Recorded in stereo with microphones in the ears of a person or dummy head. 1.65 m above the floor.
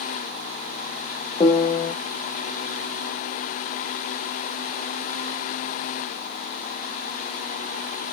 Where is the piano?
20° left (ahead or behind), 0.5 m.